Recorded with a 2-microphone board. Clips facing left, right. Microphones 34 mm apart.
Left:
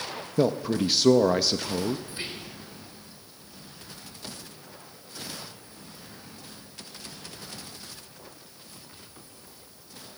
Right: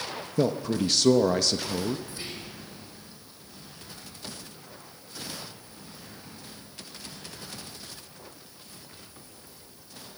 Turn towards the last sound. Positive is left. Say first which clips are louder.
# left 2 dB
turn(degrees=30)  # may be behind; listen again after turning